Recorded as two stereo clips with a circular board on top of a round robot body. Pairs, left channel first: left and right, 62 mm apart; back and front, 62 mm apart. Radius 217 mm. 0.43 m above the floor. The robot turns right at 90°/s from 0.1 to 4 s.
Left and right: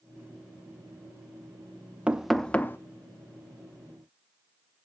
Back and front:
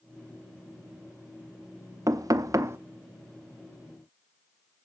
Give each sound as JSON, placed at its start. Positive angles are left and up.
{"t": 2.1, "sound": "knocking", "azimuth_deg": -20, "distance_m": 1.0}